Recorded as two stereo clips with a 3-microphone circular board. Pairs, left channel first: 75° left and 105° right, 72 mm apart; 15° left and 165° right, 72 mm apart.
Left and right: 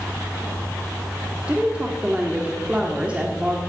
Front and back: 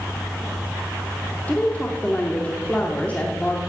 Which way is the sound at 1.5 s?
40° right.